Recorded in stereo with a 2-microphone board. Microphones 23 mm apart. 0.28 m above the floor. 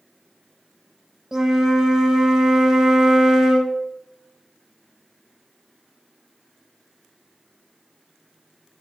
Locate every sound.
1.3 s a flute: 25° right (ahead or behind), 0.8 m